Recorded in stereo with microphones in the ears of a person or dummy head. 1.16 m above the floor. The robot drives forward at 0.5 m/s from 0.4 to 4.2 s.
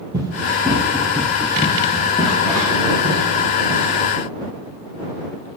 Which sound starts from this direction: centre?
Running footsteps, at 0.1 s.